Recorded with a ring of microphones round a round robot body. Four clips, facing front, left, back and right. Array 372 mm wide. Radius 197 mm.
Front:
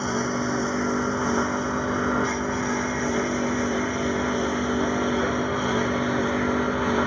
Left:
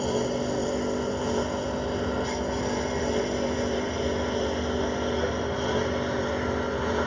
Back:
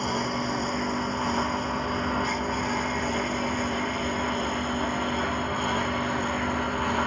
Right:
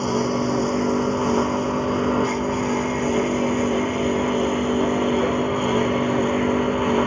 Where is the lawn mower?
75° right; by 7.1 s 70° right.